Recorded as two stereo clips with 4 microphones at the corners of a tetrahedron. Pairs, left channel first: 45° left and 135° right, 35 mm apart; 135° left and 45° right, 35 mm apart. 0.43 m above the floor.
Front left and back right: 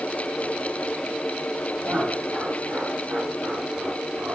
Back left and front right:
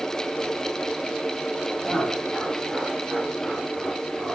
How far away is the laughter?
About 7 m.